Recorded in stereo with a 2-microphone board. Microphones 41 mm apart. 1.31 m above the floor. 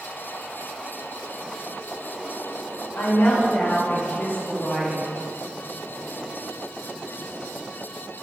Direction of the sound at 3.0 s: 70° left (ahead or behind).